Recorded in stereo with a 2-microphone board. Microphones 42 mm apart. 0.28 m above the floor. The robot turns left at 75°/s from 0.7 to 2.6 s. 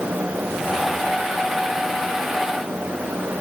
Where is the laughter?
No laughter in this recording.